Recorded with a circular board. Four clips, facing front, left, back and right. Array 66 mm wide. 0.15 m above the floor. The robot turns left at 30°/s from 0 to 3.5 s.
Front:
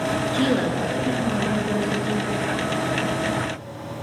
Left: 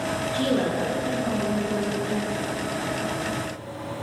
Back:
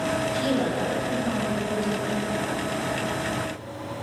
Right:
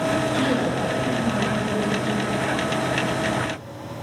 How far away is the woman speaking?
About 2.5 m.